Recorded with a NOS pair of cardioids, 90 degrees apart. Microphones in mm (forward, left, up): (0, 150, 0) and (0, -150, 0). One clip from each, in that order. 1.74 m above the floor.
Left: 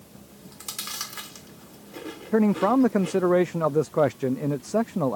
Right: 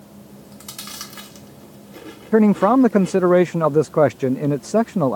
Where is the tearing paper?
No tearing paper in this recording.